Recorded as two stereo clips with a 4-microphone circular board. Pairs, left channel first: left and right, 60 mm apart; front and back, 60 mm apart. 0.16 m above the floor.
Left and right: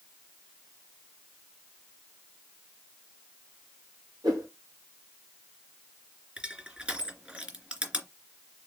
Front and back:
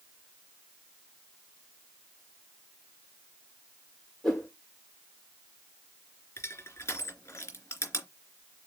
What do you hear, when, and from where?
4.2 s a whoosh: 85° right, 4 m
6.4 s crushing: 25° right, 2.5 m